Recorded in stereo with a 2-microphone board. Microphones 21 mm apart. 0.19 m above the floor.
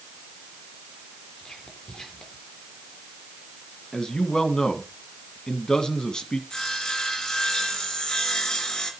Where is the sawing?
35° left (ahead or behind), 2.5 m.